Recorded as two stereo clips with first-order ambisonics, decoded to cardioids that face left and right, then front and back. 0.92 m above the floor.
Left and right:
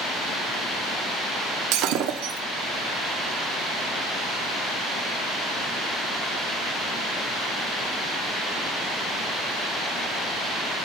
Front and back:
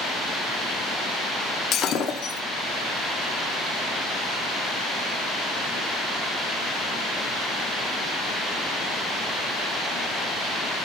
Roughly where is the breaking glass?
Ahead right.